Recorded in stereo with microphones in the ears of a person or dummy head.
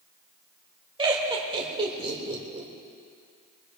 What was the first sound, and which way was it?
Laughter, 25° right (ahead or behind).